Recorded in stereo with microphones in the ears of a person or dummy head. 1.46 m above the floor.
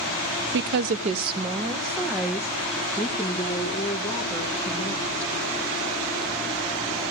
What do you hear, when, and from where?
0.5 s a woman speaking: 65° right (ahead or behind), 0.6 m; by 5.3 s 5° left (ahead or behind), 3 m